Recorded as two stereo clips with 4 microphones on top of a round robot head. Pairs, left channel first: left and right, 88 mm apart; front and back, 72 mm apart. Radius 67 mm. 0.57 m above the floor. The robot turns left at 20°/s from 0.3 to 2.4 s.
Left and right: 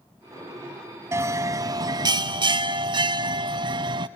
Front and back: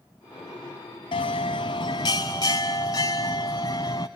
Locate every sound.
1.1 s a bell: 30° right, 1.0 m; by 4.1 s 55° right, 1.0 m